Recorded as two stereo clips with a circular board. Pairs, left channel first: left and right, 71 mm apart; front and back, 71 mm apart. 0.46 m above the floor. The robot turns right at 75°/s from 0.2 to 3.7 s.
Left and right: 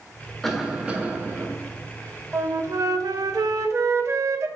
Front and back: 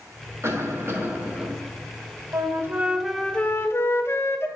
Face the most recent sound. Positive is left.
turn(degrees=-45)